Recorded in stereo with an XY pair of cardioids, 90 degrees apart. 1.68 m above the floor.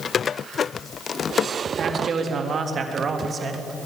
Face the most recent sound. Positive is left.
turn(degrees=-45)